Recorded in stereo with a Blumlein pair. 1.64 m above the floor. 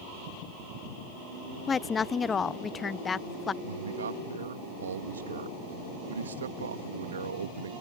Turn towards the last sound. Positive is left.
turn(degrees=-65)